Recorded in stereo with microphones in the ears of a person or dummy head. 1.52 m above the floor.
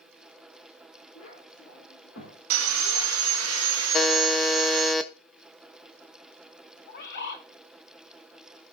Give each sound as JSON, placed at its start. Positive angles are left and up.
{"t": 1.1, "sound": "a child speaking", "side_deg": 80, "distance_m": 4.0}
{"t": 2.5, "sound": "sawing", "side_deg": -85, "distance_m": 1.1}
{"t": 3.9, "sound": "a buzzer", "side_deg": 0, "distance_m": 0.9}
{"t": 6.9, "sound": "a bird", "side_deg": 65, "distance_m": 1.4}